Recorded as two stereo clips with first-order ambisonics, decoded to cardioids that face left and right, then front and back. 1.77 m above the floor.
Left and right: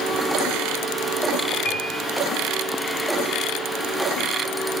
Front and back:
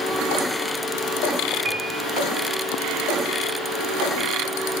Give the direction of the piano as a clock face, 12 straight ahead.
7 o'clock.